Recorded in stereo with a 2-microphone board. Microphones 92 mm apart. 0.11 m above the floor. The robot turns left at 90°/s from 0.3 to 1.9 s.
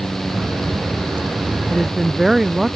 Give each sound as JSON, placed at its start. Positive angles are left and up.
{"t": 1.7, "sound": "a woman speaking", "side_deg": 15}